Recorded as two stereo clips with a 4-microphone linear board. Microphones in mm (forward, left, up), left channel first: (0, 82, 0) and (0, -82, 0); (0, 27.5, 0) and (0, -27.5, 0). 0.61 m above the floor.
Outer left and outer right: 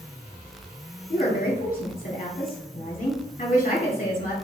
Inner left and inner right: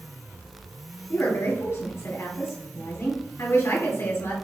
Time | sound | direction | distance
1.1 | a woman speaking | 55° left (ahead or behind) | 2 m